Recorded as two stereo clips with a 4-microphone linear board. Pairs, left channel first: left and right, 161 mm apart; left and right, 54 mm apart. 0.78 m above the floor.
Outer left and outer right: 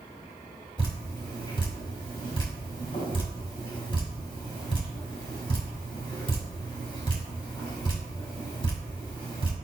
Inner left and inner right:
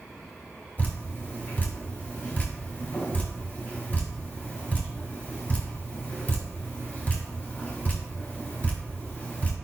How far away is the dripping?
About 2.5 m.